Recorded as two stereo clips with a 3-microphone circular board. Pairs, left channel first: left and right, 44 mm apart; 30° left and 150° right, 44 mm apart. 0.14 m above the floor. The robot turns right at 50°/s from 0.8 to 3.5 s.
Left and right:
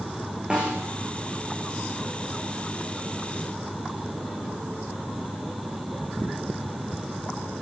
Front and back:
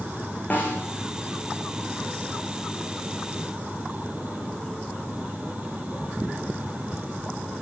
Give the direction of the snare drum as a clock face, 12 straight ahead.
1 o'clock.